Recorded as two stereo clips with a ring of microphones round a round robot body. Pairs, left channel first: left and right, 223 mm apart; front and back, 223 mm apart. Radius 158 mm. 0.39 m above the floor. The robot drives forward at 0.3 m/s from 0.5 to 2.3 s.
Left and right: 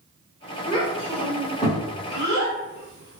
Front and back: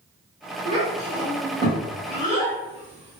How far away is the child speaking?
About 1.1 m.